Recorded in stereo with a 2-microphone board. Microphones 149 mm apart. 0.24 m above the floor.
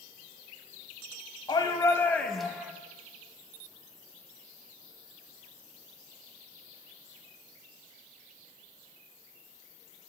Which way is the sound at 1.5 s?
35° left (ahead or behind).